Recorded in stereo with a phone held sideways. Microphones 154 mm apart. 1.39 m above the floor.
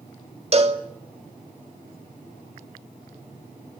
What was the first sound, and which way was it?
A cowbell, 40° right (ahead or behind).